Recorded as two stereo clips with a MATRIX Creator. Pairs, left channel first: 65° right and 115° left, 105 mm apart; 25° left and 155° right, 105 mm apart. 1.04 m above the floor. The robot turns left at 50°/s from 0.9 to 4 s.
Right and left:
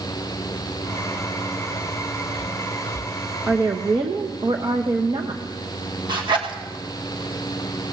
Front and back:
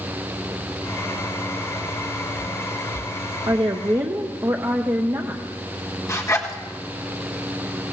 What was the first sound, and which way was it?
A woman speaking, 175° left.